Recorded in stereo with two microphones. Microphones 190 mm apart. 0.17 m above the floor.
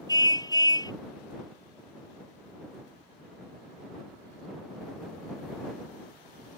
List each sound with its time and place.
0.1 s a car horn: 20° left (ahead or behind)